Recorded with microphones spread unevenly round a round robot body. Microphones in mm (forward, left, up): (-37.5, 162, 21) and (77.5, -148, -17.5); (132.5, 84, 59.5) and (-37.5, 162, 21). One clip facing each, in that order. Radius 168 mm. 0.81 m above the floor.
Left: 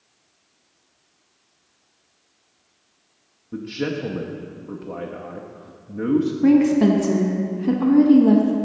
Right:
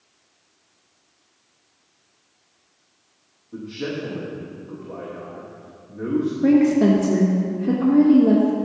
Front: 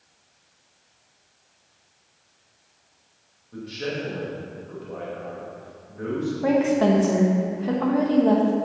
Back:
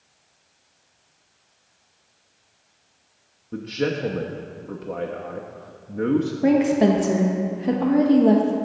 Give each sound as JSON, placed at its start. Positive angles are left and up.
{"t": 3.5, "sound": "a man speaking", "azimuth_deg": 145, "distance_m": 0.8}
{"t": 6.4, "sound": "a woman speaking", "azimuth_deg": -175, "distance_m": 1.1}